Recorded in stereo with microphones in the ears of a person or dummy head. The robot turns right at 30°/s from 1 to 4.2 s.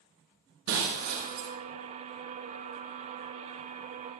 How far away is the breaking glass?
About 3.5 m.